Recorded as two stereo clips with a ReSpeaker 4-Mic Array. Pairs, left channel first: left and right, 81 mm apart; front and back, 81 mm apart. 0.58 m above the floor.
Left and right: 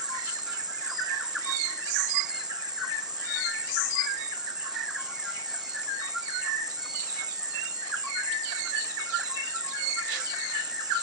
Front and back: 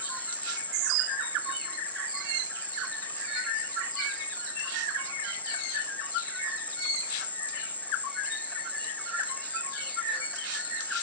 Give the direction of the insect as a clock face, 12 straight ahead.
2 o'clock.